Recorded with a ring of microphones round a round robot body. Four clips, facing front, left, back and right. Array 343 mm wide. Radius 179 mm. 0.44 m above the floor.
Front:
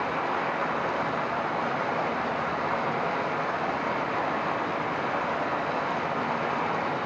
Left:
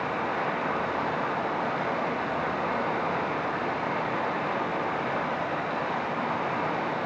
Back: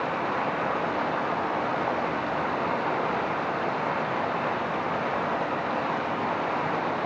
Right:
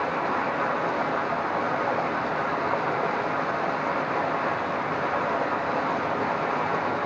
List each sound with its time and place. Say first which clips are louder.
0.0 s running water: right 3 dB, back 1 dB; 120° right, 7 m